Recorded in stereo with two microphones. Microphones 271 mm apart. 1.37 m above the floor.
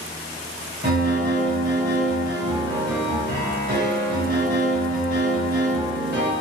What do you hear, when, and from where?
0.8 s a piano: 40° right (ahead or behind), 1.5 m